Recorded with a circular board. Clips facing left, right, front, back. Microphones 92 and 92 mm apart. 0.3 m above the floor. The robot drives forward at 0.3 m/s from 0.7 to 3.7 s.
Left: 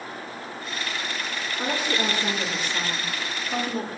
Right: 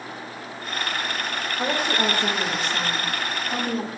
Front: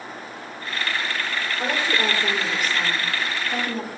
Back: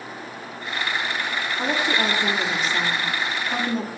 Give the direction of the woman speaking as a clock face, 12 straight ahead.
4 o'clock.